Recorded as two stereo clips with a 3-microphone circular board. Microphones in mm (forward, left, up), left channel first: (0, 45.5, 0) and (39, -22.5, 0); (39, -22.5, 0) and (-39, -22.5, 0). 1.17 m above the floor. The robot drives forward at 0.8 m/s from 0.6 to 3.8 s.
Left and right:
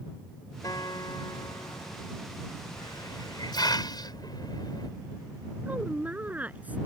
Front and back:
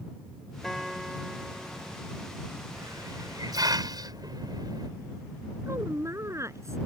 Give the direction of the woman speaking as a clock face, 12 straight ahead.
4 o'clock.